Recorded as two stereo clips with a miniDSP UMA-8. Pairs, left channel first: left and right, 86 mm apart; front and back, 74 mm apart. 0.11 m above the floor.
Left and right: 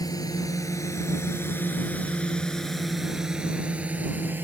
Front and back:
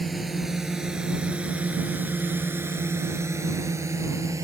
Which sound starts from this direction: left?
A drone, at 0.0 s.